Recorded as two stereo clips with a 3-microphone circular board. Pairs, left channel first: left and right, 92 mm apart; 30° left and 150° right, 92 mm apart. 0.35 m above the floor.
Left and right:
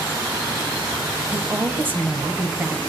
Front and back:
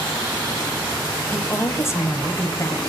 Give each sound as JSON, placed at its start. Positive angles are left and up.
{"t": 1.3, "sound": "a woman speaking", "azimuth_deg": -25, "distance_m": 1.7}